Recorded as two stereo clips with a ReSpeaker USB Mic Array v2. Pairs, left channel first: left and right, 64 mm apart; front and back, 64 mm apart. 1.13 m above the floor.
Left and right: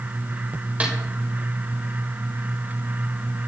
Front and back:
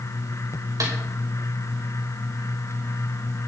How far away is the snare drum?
About 5 m.